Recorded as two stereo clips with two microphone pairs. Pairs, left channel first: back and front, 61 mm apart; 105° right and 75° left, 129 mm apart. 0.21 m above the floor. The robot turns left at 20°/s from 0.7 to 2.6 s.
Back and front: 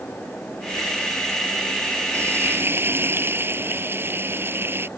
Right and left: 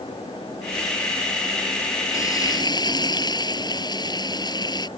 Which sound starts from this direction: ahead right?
Frying, at 2.1 s.